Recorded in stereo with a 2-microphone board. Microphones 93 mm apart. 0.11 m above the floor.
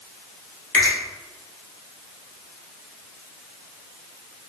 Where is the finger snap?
20° left (ahead or behind), 1.2 m.